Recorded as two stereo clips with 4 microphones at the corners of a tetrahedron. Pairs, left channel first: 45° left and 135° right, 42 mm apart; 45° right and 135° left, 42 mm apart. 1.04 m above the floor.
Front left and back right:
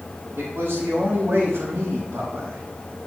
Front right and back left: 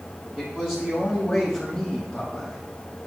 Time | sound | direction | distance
0.3 | a man speaking | 155° right | 3.5 m